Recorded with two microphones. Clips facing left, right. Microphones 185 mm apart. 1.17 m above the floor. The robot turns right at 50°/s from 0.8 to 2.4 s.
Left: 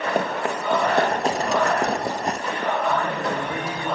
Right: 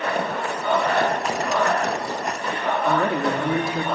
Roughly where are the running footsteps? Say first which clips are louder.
Left 2 dB; left.